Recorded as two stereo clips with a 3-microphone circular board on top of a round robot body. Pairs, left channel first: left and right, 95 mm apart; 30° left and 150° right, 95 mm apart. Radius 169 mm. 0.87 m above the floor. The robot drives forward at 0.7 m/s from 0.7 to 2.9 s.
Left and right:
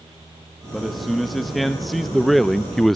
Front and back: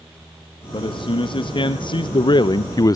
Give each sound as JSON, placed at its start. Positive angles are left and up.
{"t": 0.7, "sound": "a man speaking", "azimuth_deg": 0, "distance_m": 2.0}